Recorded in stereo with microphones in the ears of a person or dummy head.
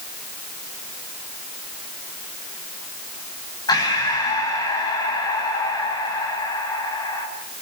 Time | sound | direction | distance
3.7 | breathing | 20° left (ahead or behind) | 8 m